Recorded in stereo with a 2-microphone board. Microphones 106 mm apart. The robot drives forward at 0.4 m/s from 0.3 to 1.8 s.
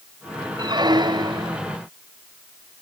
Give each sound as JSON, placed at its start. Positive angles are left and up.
{"t": 0.6, "sound": "a squeak", "side_deg": -40}